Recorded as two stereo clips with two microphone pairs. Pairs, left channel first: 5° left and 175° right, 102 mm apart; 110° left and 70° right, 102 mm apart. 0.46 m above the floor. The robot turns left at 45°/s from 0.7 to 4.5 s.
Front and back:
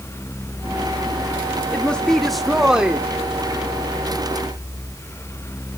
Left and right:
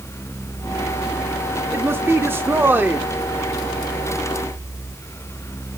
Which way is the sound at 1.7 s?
50° right.